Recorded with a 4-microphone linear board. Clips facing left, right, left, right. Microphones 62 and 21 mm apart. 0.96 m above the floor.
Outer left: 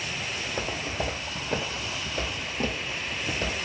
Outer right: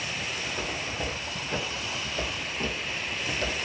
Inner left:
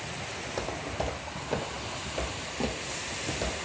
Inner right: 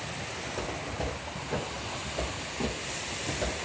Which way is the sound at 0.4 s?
55° left (ahead or behind).